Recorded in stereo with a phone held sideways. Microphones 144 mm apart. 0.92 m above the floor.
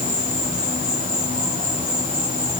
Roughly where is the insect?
Right.